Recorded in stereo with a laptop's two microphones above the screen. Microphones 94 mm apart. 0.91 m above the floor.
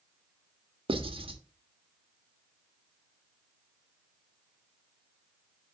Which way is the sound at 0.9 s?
75° right (ahead or behind).